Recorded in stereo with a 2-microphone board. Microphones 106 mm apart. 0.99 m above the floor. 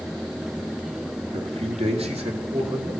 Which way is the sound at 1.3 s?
70° right (ahead or behind).